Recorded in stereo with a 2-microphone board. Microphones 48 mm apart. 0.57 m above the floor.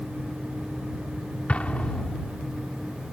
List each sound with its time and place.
1.5 s an explosion: 30° left (ahead or behind)